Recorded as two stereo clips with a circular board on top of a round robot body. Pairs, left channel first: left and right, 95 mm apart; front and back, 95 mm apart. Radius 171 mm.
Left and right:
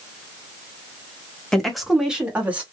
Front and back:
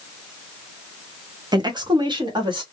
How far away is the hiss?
No hiss in this recording.